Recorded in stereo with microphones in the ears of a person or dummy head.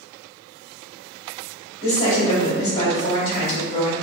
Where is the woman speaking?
35° left (ahead or behind), 1.8 m.